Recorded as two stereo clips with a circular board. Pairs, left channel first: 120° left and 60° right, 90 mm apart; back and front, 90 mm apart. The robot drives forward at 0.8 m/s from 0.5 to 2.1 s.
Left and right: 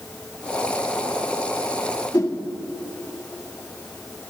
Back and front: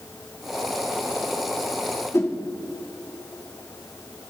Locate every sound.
2.1 s a whoosh: 140° left, 1.3 m